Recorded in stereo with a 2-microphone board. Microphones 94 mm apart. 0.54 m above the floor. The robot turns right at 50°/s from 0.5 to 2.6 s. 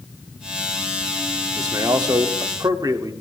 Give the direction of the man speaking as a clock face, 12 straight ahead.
4 o'clock.